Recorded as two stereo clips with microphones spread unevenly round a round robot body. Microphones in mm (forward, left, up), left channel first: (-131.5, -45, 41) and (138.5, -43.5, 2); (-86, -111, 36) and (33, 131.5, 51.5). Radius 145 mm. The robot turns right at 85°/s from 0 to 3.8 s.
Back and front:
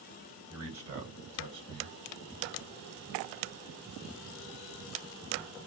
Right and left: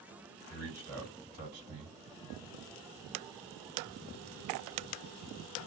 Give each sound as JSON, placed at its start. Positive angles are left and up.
{"t": 0.5, "sound": "a man speaking", "azimuth_deg": -75, "distance_m": 2.0}